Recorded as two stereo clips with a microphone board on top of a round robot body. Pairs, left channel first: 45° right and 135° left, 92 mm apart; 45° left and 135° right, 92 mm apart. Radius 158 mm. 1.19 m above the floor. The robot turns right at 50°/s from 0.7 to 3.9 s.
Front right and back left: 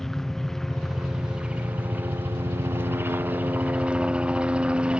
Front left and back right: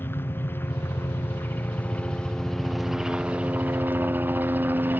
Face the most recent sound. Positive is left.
turn(degrees=-165)